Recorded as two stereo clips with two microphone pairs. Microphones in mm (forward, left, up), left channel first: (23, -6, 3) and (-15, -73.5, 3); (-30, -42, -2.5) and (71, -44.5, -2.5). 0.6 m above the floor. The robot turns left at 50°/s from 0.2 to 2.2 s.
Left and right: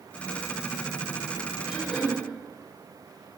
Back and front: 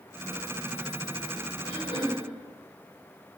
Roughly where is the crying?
No crying in this recording.